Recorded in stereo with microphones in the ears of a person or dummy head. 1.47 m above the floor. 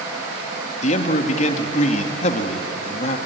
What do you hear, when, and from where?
0.8 s a man speaking: 45° left (ahead or behind), 2 m